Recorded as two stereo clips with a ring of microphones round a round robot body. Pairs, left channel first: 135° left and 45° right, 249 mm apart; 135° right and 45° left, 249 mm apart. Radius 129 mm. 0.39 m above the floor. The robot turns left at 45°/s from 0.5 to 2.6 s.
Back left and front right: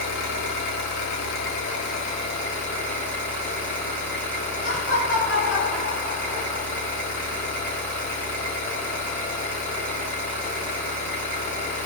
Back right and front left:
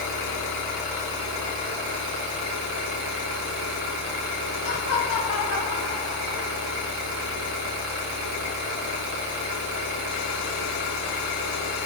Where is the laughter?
45° left, 1.5 m.